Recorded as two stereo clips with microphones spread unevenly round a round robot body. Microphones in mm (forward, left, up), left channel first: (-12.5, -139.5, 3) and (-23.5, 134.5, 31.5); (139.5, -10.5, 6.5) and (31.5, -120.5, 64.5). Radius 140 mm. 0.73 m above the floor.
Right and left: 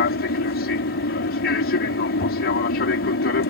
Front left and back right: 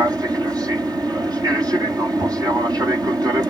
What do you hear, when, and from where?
0.0 s an aircraft: 55° right